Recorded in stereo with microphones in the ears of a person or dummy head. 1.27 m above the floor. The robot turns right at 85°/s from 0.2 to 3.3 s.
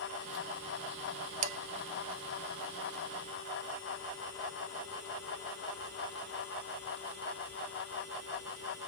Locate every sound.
1.4 s dishes clattering: 35° right (ahead or behind), 0.6 m; by 1.6 s 45° right (ahead or behind), 0.6 m